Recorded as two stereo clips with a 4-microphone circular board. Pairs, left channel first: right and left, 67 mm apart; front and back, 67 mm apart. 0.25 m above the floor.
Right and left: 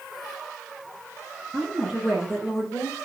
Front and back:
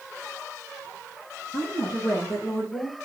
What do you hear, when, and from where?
1.5 s a woman speaking: 10° right, 5.5 m; by 3.0 s straight ahead, 5.5 m